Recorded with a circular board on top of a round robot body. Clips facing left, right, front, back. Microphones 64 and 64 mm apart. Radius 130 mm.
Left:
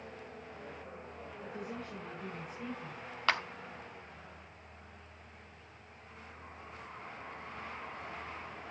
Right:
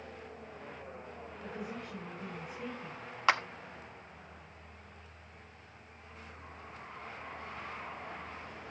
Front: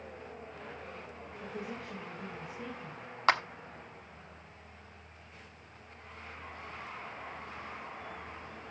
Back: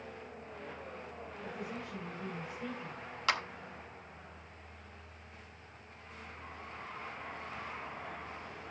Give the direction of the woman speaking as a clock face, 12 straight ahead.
12 o'clock.